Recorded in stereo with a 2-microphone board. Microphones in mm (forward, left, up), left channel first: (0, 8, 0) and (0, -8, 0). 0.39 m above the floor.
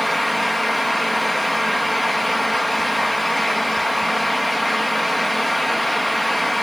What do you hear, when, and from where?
Only background noise.